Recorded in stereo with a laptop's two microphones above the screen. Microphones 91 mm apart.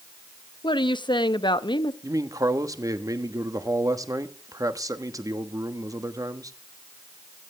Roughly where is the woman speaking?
Left.